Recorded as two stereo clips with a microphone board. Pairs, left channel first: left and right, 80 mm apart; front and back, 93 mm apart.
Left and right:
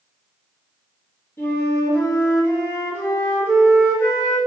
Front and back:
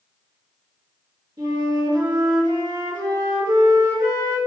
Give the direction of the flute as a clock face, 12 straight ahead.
7 o'clock.